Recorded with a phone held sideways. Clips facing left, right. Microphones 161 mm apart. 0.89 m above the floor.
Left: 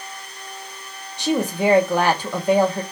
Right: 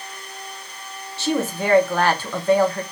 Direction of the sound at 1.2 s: 15° left (ahead or behind).